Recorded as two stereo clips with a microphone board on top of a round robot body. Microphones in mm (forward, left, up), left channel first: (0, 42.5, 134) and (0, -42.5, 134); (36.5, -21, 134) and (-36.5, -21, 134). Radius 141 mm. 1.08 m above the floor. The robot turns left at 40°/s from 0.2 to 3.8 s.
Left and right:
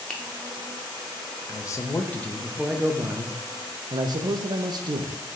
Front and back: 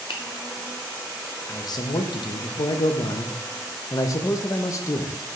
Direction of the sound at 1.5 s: 40° left.